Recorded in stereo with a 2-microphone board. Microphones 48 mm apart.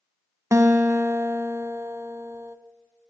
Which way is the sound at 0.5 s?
70° right (ahead or behind).